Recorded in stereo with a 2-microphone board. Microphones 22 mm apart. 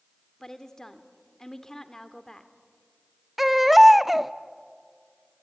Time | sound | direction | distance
0.4 | a woman speaking | 30° left (ahead or behind) | 1.8 m
3.4 | a baby crying | 10° right (ahead or behind) | 0.6 m